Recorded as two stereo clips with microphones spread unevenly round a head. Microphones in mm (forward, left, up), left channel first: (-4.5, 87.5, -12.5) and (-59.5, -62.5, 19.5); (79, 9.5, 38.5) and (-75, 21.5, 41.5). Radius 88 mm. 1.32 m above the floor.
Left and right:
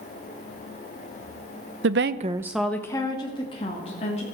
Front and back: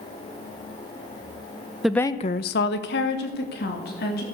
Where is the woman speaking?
95° right, 0.8 m; by 4.2 s 15° left, 3 m.